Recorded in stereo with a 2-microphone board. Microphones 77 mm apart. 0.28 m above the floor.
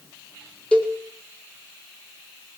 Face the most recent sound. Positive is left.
turn(degrees=15)  # may be behind; listen again after turning